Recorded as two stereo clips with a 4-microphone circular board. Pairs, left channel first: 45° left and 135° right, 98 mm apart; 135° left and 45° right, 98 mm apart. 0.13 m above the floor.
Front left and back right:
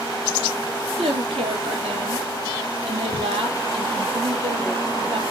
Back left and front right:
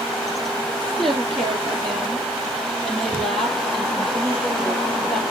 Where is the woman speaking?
140° right, 4.5 m.